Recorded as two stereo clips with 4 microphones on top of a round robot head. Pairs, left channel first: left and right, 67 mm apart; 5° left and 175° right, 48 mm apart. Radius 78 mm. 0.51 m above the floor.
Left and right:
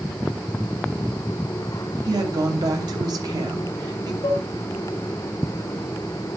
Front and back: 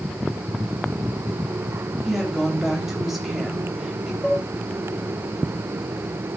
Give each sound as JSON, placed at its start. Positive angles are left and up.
{"t": 2.0, "sound": "a woman speaking", "azimuth_deg": -90, "distance_m": 3.0}
{"t": 4.2, "sound": "dishes clattering", "azimuth_deg": 80, "distance_m": 3.0}